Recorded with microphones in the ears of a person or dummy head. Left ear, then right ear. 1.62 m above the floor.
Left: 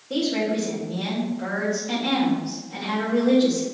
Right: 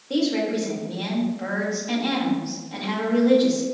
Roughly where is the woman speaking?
Right.